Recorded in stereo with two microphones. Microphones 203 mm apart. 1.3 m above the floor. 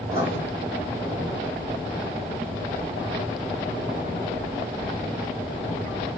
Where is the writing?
45° right (ahead or behind), 1.6 m.